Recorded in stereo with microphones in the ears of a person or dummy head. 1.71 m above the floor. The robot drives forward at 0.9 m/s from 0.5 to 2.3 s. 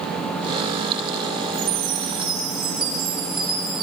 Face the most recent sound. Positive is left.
turn(degrees=-30)  # may be behind; listen again after turning